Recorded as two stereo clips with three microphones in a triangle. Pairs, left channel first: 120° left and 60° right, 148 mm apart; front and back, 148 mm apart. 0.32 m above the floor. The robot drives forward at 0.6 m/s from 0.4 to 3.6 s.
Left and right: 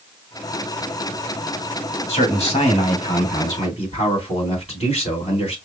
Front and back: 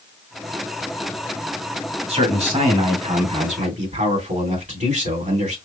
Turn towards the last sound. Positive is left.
turn(degrees=160)